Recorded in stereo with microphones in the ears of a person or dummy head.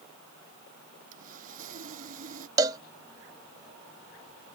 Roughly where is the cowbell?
Centre.